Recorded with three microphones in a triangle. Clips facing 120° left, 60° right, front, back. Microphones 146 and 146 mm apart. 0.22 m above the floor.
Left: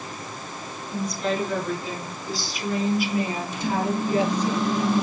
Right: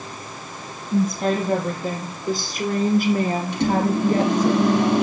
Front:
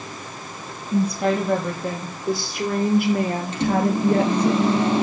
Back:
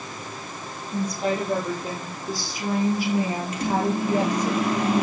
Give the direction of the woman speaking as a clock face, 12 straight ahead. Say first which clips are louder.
Right 6 dB, front 5 dB; 1 o'clock.